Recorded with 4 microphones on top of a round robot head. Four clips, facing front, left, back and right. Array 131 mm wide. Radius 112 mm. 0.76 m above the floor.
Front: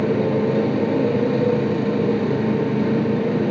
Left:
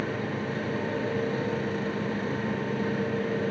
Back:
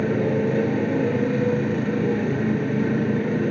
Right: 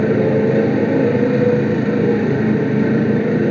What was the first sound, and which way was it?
A motorcycle, 80° right.